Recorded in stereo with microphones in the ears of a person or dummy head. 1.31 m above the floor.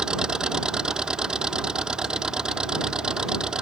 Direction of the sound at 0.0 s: 5° right (ahead or behind).